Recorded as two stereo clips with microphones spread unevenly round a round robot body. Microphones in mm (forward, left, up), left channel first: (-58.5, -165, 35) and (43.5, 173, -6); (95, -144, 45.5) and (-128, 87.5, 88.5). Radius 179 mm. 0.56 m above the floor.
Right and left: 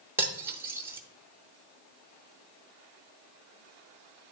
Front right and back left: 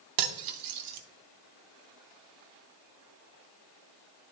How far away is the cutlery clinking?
About 0.7 m.